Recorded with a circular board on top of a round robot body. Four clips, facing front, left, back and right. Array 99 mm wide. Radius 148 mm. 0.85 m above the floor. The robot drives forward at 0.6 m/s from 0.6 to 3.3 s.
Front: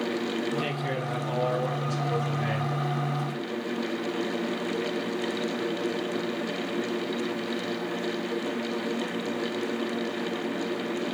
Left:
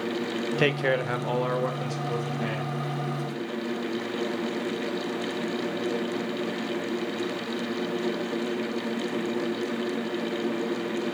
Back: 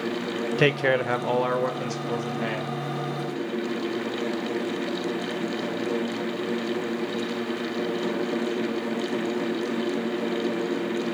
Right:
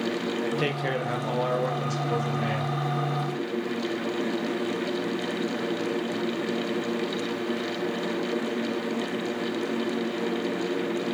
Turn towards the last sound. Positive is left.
turn(degrees=175)